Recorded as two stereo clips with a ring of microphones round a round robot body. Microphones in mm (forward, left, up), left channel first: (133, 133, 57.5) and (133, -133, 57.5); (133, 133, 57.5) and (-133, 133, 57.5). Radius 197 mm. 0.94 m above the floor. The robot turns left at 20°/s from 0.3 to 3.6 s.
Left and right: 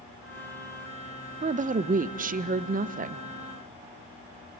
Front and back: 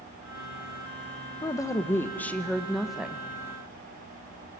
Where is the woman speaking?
60° right, 0.6 m; by 3.2 s 100° right, 0.6 m.